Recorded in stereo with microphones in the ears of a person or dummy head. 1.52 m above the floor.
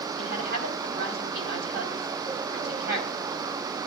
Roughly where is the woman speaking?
Right.